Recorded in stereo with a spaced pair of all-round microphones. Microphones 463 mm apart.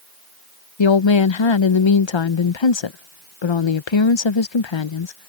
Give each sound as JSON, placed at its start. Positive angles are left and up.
{"t": 0.8, "sound": "a woman speaking", "side_deg": 75}